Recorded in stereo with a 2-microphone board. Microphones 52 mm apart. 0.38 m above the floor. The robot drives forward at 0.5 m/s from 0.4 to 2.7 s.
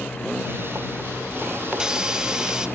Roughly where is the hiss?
Centre.